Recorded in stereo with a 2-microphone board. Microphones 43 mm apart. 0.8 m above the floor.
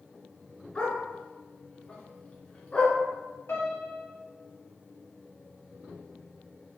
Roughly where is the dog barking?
Left.